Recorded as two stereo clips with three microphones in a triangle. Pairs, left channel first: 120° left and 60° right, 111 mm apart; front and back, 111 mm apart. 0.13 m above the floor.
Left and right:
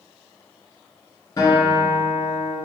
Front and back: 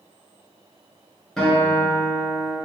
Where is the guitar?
85° left, 1.1 m.